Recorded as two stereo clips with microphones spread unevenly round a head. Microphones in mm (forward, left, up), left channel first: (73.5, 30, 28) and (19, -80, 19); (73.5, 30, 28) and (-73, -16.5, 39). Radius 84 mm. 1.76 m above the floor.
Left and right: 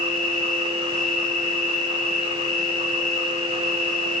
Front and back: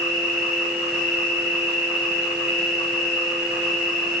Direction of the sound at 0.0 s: 70° left.